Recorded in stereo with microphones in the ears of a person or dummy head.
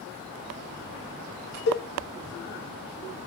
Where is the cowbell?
65° left (ahead or behind), 1.8 m.